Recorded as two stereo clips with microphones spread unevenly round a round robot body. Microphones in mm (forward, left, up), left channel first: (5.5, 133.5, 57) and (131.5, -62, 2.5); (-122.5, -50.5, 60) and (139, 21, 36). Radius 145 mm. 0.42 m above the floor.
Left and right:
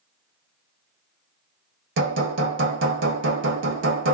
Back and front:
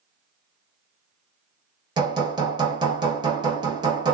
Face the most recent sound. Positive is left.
turn(degrees=-55)